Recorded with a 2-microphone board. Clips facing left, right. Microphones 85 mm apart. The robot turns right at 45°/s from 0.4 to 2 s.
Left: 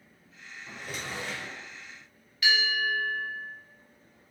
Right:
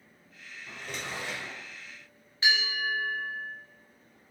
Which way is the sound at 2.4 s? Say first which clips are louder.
Left 2 dB; 30° right (ahead or behind).